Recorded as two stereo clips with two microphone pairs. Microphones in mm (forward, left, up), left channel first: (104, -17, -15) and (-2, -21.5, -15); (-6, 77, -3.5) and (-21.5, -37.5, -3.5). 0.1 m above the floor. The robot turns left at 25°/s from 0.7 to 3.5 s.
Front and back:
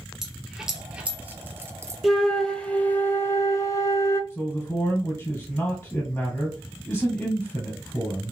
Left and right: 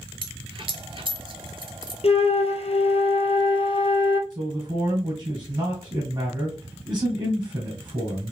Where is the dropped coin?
90° right, 0.6 m; by 1.9 s 120° right, 0.6 m.